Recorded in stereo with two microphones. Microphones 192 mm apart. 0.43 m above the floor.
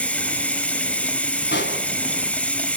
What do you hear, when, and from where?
0.0 s running water: 5° left (ahead or behind), 1.3 m
1.5 s a pop: 70° left (ahead or behind), 3.5 m